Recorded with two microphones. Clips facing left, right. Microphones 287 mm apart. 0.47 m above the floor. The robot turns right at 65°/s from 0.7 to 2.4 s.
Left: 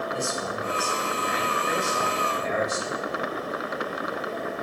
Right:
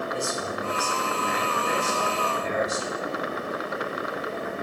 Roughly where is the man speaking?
Behind right.